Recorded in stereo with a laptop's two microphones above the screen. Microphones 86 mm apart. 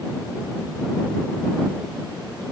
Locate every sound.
Only background noise.